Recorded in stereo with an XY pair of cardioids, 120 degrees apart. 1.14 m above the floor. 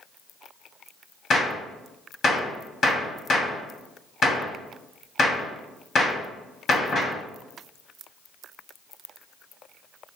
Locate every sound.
1.3 s a gunshot: 35° left, 1.8 m